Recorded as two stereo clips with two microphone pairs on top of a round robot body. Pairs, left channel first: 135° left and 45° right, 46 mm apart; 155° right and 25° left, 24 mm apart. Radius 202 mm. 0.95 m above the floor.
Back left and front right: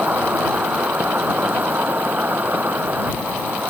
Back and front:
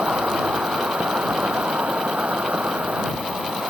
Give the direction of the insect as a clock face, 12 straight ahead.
12 o'clock.